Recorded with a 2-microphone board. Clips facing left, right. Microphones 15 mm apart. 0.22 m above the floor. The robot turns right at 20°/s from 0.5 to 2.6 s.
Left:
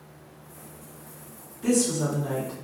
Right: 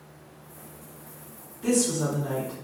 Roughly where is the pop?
I don't hear a pop.